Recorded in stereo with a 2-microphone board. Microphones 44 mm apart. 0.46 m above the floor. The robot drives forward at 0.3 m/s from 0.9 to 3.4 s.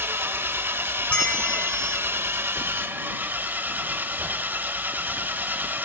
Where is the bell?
30° left (ahead or behind), 1.6 m; by 2.0 s 25° left (ahead or behind), 1.8 m.